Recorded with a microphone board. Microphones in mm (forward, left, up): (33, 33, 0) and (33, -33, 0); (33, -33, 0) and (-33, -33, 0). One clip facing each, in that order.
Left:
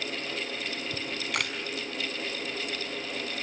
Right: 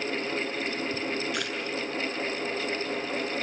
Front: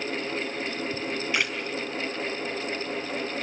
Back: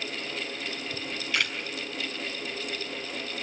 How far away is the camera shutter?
About 5 m.